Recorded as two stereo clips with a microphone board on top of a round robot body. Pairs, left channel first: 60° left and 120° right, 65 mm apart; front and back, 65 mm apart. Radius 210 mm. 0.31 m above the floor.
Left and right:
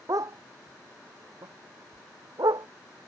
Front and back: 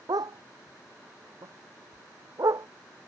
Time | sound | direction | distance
0.1 | a dog barking | 160° right | ?